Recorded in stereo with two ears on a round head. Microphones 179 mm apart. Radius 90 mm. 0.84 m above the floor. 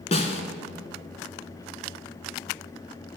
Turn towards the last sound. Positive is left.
turn(degrees=35)  # may be behind; listen again after turning